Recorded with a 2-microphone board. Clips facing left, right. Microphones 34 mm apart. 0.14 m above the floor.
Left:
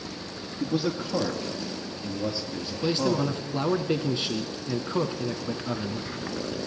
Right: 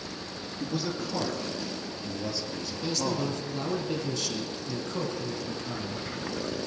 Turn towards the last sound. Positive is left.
turn(degrees=30)  # may be behind; listen again after turning